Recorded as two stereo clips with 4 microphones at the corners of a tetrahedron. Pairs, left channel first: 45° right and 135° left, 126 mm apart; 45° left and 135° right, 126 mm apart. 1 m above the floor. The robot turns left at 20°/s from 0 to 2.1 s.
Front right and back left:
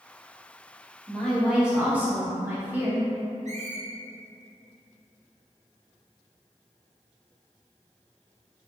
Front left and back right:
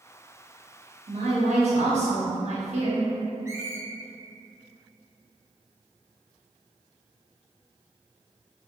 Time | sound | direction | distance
1.1 | a woman speaking | 130° right | 1.0 m
3.5 | a squeak | 155° left | 0.6 m